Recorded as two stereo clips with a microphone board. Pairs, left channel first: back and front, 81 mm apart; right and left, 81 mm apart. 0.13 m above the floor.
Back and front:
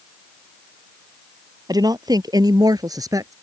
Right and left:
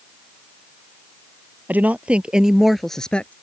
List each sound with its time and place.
1.7 s a woman speaking: 25° left; by 3.3 s 25° right